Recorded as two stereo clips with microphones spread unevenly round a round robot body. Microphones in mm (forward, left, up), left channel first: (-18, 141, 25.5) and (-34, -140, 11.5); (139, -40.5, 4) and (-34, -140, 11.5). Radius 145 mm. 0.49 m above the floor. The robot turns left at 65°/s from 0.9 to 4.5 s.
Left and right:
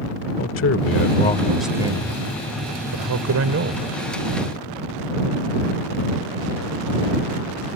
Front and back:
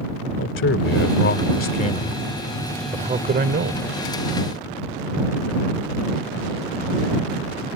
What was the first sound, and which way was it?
A man speaking, 45° left.